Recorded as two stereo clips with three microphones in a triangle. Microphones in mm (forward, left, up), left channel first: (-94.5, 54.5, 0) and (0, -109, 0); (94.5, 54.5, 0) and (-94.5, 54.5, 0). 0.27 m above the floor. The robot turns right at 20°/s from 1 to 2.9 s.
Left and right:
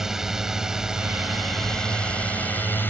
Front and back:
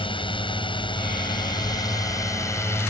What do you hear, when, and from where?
0.0 s a drone: 25° left; by 2.9 s 55° left